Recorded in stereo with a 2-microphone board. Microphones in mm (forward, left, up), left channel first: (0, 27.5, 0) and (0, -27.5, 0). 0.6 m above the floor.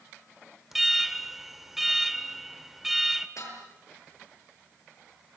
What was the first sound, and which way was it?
An alarm, 5° right (ahead or behind).